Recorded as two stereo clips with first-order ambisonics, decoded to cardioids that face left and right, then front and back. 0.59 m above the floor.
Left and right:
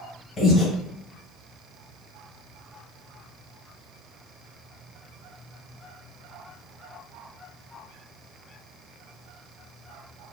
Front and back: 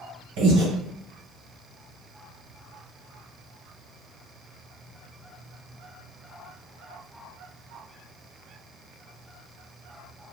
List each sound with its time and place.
0.4 s breathing: 160° left, 1.6 m